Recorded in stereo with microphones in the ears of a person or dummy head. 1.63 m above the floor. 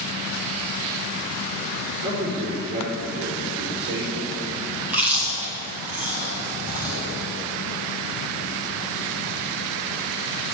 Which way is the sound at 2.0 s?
40° right (ahead or behind).